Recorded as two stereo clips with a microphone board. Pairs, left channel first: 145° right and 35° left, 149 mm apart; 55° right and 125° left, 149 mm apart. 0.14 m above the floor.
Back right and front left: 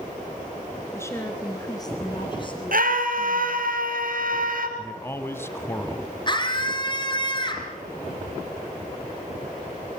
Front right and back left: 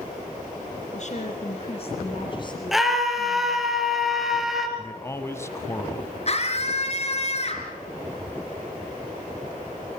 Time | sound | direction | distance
0.9 | a woman speaking | 75° right | 2.5 m
2.7 | a scream | 35° left | 3 m
4.8 | a man speaking | 100° right | 1.3 m
6.3 | a scream | 90° right | 3.5 m